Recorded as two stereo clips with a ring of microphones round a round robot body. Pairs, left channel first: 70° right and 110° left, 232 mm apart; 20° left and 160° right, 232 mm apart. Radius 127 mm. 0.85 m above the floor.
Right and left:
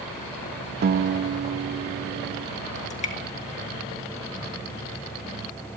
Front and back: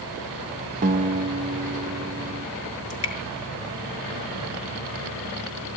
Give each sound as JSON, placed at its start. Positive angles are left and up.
{"t": 0.8, "sound": "a guitar", "azimuth_deg": 150, "distance_m": 0.8}
{"t": 2.9, "sound": "dripping", "azimuth_deg": -5, "distance_m": 3.0}